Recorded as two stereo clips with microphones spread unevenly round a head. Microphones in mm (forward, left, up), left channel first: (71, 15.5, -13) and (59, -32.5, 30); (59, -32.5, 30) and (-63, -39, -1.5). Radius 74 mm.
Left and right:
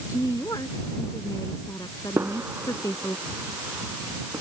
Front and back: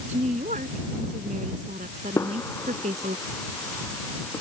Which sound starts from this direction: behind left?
A woman speaking, at 0.1 s.